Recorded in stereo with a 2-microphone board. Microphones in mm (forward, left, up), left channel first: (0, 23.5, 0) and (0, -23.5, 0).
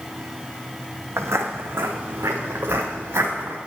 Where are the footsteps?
80° right, 0.9 m; by 3.6 s 70° right (ahead or behind), 2.5 m.